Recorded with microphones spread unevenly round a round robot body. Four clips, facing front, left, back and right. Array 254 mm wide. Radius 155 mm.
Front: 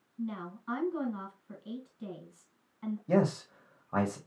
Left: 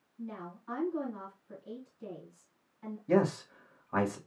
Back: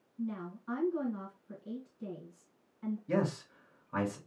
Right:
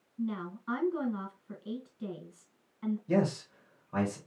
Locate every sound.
0.2 s a woman speaking: 30° right, 3.5 m
3.1 s a man speaking: 30° left, 1.8 m